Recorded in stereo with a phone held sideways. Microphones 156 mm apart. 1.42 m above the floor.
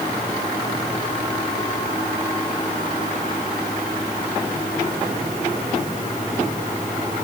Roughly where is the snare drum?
No snare drum in this recording.